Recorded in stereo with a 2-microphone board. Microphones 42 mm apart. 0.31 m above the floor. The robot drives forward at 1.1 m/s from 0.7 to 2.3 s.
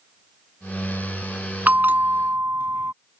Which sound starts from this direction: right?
A bell, at 1.7 s.